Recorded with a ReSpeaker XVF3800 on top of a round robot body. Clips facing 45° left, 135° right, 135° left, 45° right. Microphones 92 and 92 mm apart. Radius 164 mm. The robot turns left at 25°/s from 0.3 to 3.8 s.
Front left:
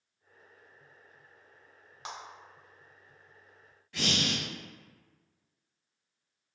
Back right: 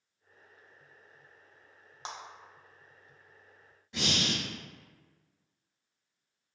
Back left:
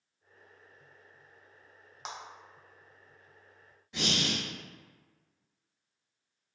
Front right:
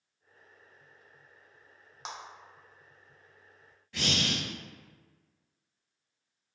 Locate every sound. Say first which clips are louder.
2.0 s a clap: even, even; 140° right, 0.8 m
3.9 s breathing: even, even; straight behind, 0.8 m